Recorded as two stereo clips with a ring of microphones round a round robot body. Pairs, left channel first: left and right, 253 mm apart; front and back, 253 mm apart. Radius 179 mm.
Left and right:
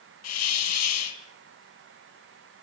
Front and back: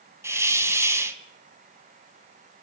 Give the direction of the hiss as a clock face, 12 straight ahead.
9 o'clock.